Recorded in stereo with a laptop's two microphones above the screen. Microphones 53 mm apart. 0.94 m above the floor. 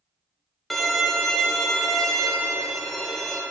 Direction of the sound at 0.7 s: 5° left (ahead or behind).